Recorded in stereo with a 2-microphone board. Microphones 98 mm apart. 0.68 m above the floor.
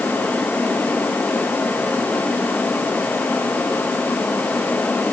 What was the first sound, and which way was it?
Only background noise.